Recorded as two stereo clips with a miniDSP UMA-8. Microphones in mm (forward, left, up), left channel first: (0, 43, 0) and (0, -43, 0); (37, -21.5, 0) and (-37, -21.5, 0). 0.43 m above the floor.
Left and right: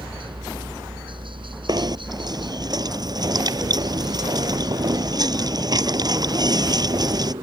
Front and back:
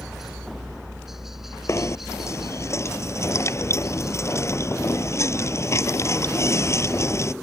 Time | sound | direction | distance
0.0 | a helicopter | 95° right | ?
1.7 | knocking | 50° right | ?